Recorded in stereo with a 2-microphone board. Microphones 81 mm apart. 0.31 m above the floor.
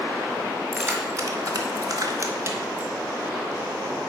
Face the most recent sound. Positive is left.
turn(degrees=-25)  # may be behind; listen again after turning